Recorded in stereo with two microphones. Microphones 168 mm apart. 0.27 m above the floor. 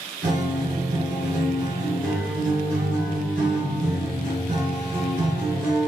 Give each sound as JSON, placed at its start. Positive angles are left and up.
{"t": 0.2, "sound": "a guitar", "side_deg": -70, "distance_m": 1.9}